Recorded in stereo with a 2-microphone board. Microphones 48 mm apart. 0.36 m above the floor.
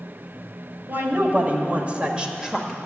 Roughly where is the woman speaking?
Right.